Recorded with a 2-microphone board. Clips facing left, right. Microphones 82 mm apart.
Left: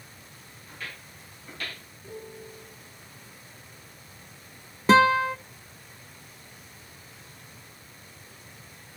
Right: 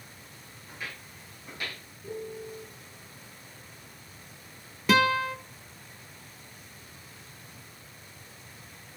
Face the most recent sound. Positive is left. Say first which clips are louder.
# left 5 dB
turn(degrees=30)  # may be behind; listen again after turning